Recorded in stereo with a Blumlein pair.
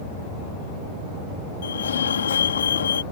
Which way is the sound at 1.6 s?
65° left.